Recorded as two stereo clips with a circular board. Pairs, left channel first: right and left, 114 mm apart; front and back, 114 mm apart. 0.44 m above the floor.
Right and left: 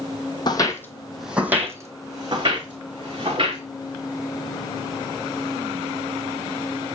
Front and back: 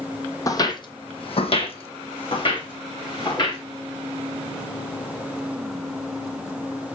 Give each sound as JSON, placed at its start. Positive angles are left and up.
{"t": 0.5, "sound": "footsteps", "azimuth_deg": -55, "distance_m": 0.6}